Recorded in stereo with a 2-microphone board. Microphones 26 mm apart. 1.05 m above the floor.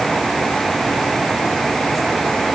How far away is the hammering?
No hammering in this recording.